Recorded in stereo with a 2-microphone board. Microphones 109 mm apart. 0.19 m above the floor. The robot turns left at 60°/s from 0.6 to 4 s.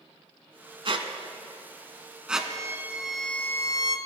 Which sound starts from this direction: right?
A squeak, at 0.8 s.